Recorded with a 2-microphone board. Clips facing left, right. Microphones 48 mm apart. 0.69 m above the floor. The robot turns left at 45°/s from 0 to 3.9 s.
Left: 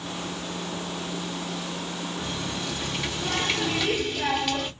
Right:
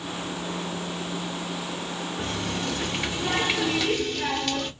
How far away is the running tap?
About 0.8 m.